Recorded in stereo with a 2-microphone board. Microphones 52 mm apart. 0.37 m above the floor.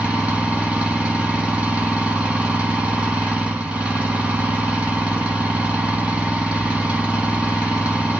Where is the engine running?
20° right (ahead or behind), 2 m.